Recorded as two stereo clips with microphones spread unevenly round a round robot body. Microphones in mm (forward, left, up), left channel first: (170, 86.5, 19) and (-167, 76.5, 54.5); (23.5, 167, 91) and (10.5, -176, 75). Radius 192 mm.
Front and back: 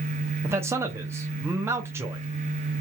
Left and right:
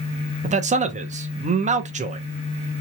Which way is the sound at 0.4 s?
90° right.